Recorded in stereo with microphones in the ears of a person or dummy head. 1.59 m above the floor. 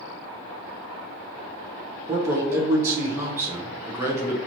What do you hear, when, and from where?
2.1 s a man speaking: 10° right (ahead or behind), 0.6 m